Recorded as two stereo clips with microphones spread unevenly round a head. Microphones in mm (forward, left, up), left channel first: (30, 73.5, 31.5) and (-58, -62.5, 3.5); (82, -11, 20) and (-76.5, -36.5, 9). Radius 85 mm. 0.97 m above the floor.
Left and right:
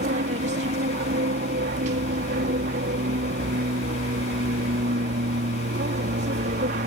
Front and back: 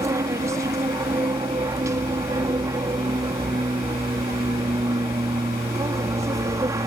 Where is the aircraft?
105° right.